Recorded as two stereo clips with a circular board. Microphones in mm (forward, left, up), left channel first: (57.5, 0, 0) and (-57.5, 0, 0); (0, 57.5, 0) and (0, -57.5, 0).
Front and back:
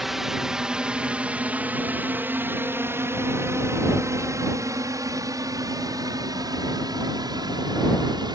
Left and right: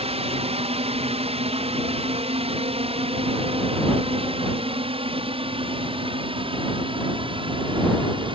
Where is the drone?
95° right; by 8.4 s 130° right.